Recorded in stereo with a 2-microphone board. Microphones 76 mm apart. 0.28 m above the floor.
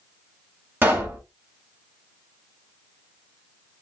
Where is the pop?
25° right (ahead or behind), 1.4 m.